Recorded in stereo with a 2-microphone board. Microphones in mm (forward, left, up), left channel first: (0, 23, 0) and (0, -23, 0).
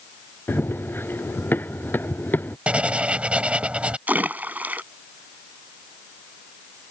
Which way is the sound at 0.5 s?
50° left (ahead or behind).